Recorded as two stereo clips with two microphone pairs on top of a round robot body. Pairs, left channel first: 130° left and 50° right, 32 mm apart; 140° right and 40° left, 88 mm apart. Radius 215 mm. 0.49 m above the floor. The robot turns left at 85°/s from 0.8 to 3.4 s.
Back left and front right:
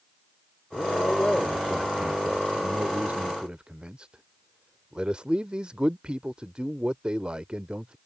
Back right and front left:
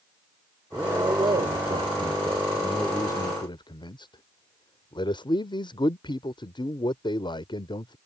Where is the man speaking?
115° left; by 8.0 s 110° right.